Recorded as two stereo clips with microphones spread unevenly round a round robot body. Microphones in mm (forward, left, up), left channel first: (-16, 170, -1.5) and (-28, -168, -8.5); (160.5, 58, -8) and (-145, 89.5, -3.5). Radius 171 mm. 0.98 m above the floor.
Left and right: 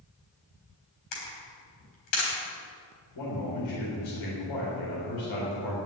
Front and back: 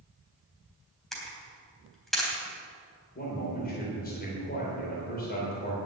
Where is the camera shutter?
85° left, 4 m.